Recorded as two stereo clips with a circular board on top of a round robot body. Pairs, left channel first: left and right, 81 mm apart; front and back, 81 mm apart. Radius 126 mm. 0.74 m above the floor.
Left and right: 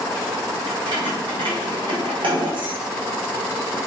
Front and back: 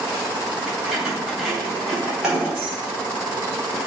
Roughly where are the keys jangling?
Right.